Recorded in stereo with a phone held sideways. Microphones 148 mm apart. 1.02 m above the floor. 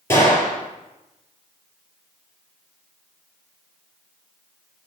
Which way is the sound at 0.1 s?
20° left (ahead or behind).